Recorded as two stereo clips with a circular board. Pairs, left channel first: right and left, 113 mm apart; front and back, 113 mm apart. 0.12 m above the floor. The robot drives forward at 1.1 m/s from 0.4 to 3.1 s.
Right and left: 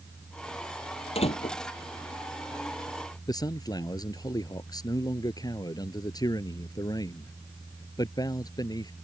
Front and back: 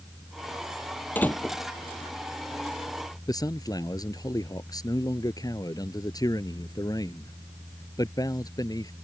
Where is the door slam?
70° right; by 1.6 s 80° right.